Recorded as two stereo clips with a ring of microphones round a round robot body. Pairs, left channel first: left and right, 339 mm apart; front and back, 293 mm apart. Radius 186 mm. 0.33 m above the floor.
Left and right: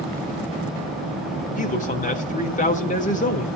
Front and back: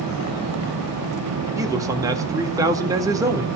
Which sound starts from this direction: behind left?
A man speaking, at 1.6 s.